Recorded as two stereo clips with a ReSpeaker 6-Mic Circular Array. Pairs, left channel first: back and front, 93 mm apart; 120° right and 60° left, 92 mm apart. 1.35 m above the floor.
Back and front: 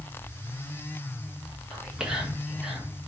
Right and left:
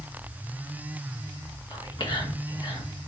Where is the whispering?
85° right, 1.1 m.